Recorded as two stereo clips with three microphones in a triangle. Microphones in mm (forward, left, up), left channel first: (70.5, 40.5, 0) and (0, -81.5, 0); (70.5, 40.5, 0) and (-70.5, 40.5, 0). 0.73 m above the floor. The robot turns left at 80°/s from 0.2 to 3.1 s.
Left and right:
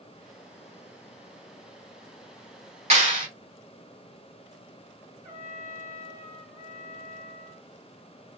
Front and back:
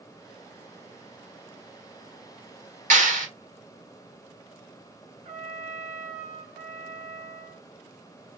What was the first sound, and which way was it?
A clap, 155° right.